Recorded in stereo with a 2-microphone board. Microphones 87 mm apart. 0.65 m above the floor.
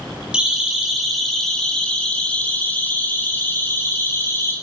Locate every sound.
0.3 s a siren: 10° right (ahead or behind), 5.5 m; by 4.5 s 30° left (ahead or behind), 8.5 m